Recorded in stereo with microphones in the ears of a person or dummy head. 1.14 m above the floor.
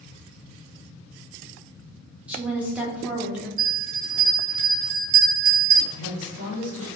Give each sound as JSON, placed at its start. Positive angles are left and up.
{"t": 2.3, "sound": "a woman speaking", "side_deg": -5, "distance_m": 0.6}
{"t": 3.6, "sound": "a bell", "side_deg": -50, "distance_m": 1.1}
{"t": 5.9, "sound": "a woman speaking", "side_deg": -45, "distance_m": 1.0}